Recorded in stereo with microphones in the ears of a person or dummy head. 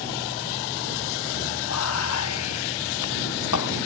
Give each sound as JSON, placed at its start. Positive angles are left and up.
{"t": 1.7, "sound": "whispering", "side_deg": 85}